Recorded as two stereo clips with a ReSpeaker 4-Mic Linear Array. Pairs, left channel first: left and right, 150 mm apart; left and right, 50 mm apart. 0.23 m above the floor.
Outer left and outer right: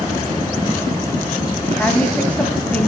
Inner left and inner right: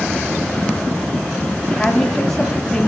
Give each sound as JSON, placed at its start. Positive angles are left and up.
{"t": 1.7, "sound": "a woman speaking", "side_deg": 10, "distance_m": 1.6}